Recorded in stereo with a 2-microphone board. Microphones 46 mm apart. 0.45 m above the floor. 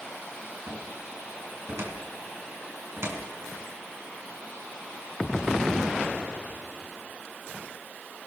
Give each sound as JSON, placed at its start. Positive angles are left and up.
{"t": 0.7, "sound": "a cupboard door", "side_deg": -65, "distance_m": 4.5}